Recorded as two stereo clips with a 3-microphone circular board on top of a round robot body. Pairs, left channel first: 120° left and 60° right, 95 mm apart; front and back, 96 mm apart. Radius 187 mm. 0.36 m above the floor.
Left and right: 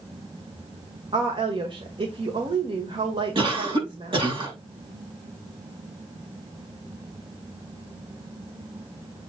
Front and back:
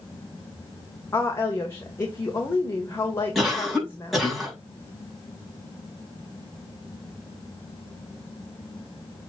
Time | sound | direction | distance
1.1 | a woman speaking | 60° right | 2.0 m
3.4 | a cough | 90° right | 5.5 m